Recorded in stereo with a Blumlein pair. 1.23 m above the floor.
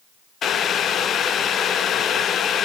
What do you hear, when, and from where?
0.4 s boiling: 25° left, 0.7 m